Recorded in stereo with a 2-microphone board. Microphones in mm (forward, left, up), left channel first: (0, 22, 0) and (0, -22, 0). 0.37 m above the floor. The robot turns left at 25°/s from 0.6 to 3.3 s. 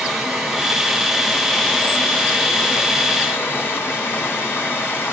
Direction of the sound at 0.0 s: 170° right.